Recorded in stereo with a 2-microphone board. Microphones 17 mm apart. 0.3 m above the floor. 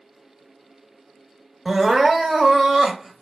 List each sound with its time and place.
1.6 s crying: 20° right (ahead or behind), 0.9 m